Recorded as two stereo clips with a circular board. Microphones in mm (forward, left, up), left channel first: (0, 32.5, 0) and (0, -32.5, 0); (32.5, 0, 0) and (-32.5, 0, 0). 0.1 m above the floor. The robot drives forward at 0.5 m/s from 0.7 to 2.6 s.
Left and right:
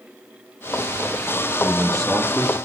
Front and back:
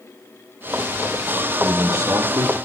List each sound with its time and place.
1.6 s a man speaking: 175° left, 2.5 m